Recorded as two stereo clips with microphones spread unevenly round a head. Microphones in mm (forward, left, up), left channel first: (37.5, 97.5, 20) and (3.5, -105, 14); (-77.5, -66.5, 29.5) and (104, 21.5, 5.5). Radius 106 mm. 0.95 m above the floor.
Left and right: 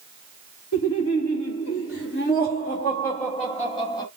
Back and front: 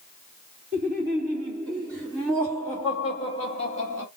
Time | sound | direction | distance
0.7 | laughter | 80° left | 1.9 m